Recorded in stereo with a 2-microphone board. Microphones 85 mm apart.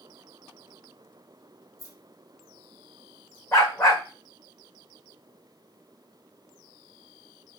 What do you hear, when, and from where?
1.8 s keys jangling: 45° left (ahead or behind), 3.5 m
3.5 s a dog barking: 35° left (ahead or behind), 2.5 m